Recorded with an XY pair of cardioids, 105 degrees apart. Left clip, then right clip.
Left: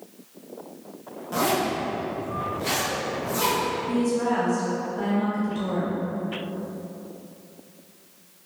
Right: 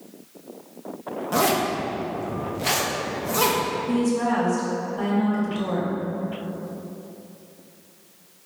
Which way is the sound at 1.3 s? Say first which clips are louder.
Right 2 dB; 40° right.